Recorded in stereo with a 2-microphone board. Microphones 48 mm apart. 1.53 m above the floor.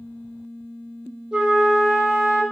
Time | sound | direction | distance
1.3 | a flute | 15° right (ahead or behind) | 0.7 m